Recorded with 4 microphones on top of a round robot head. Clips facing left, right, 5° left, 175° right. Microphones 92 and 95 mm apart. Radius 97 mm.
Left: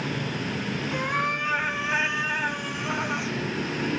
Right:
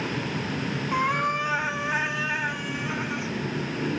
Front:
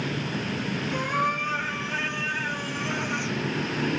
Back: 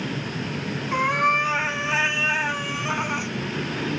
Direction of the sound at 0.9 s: 135° right.